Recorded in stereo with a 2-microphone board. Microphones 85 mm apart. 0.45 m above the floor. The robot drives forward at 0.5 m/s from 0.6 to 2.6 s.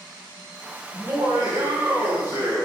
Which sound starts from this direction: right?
Laughter, at 0.9 s.